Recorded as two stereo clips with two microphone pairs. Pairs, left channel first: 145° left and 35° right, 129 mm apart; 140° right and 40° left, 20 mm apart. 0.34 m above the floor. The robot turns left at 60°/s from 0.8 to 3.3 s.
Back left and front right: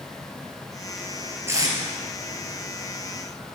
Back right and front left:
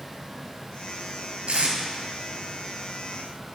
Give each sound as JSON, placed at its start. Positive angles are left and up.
{"t": 1.5, "sound": "tape being pulled", "azimuth_deg": 35, "distance_m": 1.2}